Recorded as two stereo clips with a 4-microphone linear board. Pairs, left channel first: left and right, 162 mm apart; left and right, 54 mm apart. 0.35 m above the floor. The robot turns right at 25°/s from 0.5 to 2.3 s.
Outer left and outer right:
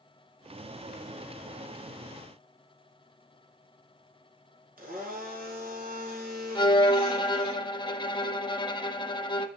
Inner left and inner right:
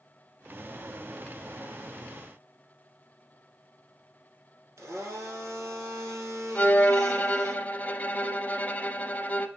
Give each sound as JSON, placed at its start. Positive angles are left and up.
{"t": 4.8, "sound": "a blender", "side_deg": -60, "distance_m": 2.0}
{"t": 6.5, "sound": "a violin", "side_deg": 30, "distance_m": 0.6}